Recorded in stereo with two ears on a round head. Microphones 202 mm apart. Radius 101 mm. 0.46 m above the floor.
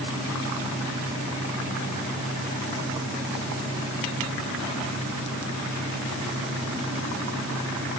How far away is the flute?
I don't hear a flute.